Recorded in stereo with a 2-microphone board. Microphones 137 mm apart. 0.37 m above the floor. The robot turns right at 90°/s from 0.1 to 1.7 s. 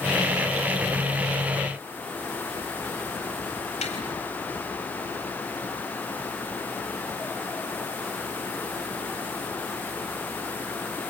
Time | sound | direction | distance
3.8 | tapping | 55° left (ahead or behind) | 4 m